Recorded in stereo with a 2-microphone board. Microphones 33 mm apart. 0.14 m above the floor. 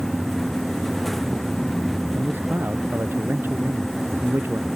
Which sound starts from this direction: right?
A man speaking, at 2.1 s.